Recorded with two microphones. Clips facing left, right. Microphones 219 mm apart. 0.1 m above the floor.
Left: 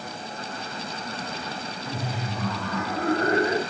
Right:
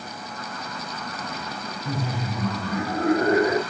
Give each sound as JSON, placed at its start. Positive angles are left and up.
{"t": 1.9, "sound": "laughter", "side_deg": -40, "distance_m": 4.0}